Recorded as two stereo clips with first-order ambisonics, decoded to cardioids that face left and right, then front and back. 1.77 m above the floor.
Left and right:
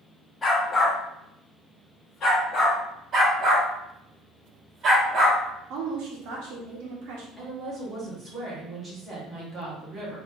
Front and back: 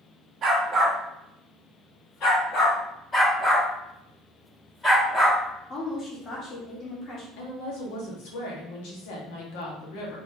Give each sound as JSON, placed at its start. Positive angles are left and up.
{"t": 0.4, "sound": "a dog barking", "azimuth_deg": 150, "distance_m": 1.3}
{"t": 3.1, "sound": "a dog barking", "azimuth_deg": -65, "distance_m": 1.4}
{"t": 5.7, "sound": "a woman speaking", "azimuth_deg": -60, "distance_m": 1.3}
{"t": 7.4, "sound": "a woman speaking", "azimuth_deg": -10, "distance_m": 1.7}